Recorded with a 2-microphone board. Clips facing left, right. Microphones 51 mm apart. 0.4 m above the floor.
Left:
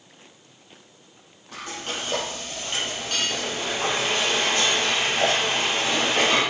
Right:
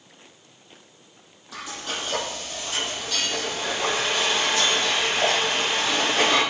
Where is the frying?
55° left (ahead or behind), 8 m.